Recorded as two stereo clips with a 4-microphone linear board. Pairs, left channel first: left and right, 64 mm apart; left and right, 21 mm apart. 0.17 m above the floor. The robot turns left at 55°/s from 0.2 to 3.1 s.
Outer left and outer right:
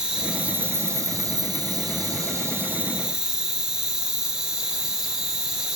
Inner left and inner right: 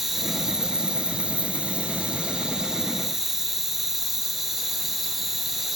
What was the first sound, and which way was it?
An insect, 10° right.